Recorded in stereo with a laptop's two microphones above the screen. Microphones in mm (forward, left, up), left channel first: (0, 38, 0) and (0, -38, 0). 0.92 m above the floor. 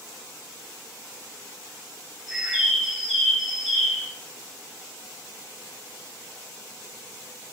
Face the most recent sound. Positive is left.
turn(degrees=0)  # may be behind; listen again after turning